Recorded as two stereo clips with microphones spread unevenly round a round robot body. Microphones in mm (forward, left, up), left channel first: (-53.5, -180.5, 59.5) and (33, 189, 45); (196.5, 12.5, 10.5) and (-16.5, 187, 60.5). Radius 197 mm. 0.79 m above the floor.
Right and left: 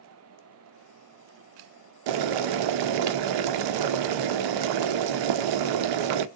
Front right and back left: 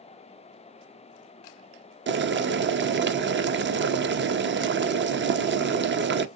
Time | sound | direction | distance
2.1 | boiling | 85° left | 0.5 m